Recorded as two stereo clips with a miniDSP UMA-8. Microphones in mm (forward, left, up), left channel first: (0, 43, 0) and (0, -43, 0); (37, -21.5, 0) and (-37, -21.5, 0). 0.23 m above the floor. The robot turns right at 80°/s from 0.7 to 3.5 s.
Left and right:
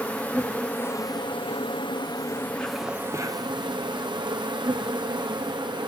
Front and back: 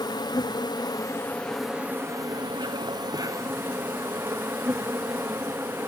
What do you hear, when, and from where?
0.0 s an insect: 15° left, 1.7 m; by 5.9 s 120° right, 1.7 m